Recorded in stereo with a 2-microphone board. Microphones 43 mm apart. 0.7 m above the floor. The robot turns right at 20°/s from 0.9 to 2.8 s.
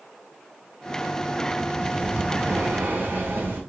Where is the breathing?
30° right (ahead or behind), 3 m; by 3.6 s 50° right (ahead or behind), 3 m.